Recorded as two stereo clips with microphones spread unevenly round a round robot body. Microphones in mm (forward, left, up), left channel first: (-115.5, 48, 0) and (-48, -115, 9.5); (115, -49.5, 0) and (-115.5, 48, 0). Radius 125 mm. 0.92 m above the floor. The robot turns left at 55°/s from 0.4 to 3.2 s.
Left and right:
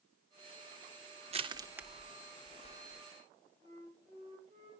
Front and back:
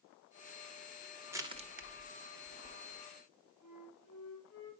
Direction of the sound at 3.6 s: 5° left.